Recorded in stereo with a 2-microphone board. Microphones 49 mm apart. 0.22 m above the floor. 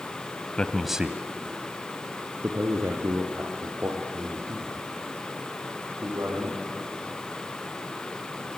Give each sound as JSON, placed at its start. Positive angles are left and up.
{"t": 0.6, "sound": "a man speaking", "side_deg": 25, "distance_m": 1.0}